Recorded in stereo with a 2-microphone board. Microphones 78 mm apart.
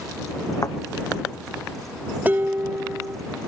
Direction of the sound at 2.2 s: 25° right (ahead or behind).